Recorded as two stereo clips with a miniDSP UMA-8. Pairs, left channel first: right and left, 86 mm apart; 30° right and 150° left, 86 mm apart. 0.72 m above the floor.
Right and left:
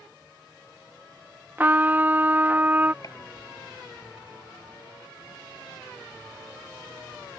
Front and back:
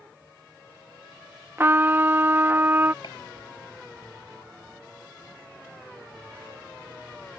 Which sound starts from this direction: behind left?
A trumpet, at 1.6 s.